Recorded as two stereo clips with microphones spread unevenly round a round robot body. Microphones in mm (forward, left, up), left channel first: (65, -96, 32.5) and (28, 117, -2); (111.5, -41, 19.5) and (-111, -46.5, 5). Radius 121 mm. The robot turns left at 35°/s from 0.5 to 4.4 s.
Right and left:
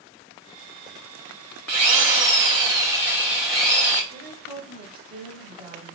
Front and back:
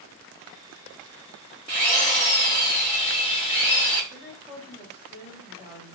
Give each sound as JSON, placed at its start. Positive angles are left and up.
{"t": 1.7, "sound": "a drill", "azimuth_deg": 90, "distance_m": 1.8}
{"t": 4.1, "sound": "a woman speaking", "azimuth_deg": 120, "distance_m": 1.0}